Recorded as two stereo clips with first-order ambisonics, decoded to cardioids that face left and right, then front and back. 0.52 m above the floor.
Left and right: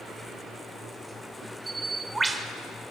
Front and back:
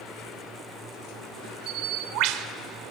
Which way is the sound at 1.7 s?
165° right.